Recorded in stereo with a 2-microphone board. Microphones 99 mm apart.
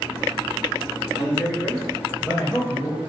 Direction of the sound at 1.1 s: 5° right (ahead or behind).